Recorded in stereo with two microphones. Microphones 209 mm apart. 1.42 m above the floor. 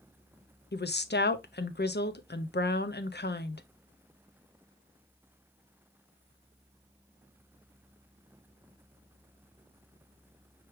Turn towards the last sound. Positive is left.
turn(degrees=55)  # may be behind; listen again after turning